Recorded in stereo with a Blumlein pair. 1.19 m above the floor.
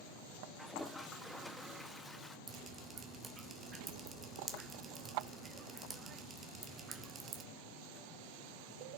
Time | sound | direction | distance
0.6 | a toilet flushing | 5° left | 1.0 m
2.5 | dripping | 15° right | 1.6 m